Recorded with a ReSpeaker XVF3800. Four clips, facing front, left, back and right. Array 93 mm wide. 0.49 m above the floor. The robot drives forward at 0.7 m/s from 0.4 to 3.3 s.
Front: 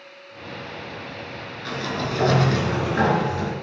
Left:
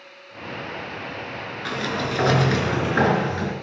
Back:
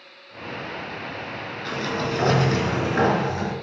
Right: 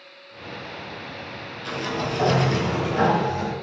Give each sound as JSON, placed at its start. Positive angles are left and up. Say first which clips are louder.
{"t": 1.6, "sound": "a sliding door", "louder": "left 1 dB, back 1 dB", "azimuth_deg": 90, "distance_m": 4.5}